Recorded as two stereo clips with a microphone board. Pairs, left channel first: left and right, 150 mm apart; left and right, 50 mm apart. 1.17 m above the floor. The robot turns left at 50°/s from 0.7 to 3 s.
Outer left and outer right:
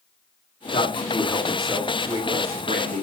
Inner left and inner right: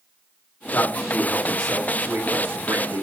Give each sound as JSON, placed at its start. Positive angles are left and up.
{"t": 0.7, "sound": "a man speaking", "azimuth_deg": 45, "distance_m": 3.5}